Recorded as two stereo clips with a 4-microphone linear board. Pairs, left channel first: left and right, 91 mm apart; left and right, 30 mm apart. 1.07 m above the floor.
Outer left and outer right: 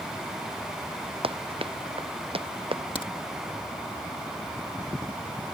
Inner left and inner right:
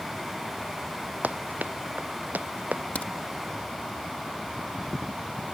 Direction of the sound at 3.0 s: 65° left (ahead or behind).